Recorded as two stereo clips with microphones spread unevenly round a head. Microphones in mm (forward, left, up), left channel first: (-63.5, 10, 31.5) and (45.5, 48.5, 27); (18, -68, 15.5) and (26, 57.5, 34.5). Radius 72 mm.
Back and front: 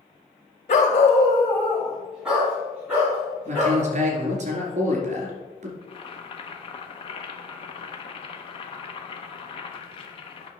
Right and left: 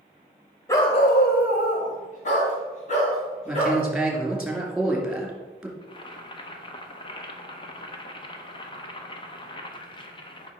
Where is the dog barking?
170° right, 1.0 m; by 3.8 s 55° right, 4.5 m.